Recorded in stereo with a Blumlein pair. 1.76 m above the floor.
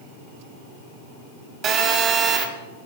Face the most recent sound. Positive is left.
turn(degrees=-30)